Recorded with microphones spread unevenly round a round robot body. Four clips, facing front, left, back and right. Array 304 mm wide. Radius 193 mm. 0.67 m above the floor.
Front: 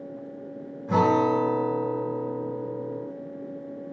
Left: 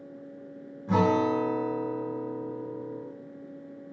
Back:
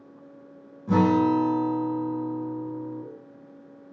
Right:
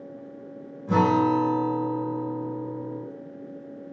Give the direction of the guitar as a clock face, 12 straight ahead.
6 o'clock.